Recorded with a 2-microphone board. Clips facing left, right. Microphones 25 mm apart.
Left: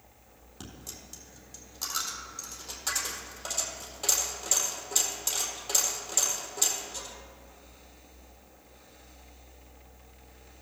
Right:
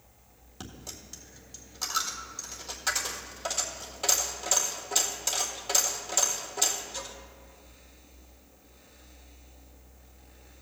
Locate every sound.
0.6 s a dropped coin: 15° right (ahead or behind), 1.6 m